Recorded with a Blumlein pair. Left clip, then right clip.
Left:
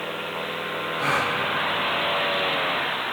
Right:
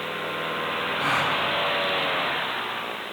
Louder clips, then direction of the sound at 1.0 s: Left 1 dB; 10° left.